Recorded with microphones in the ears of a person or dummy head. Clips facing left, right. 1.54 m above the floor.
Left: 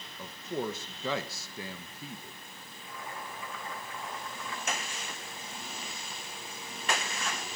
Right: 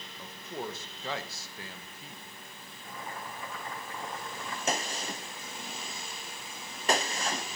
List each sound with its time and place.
0.2 s a man speaking: 70° left (ahead or behind), 1.2 m
2.8 s boiling: 40° right (ahead or behind), 6 m
4.7 s a gunshot: 35° right (ahead or behind), 0.9 m